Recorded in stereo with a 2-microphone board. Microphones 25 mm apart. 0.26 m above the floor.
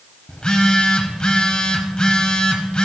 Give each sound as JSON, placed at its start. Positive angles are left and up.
{"t": 0.3, "sound": "a phone buzzing", "side_deg": 40, "distance_m": 1.1}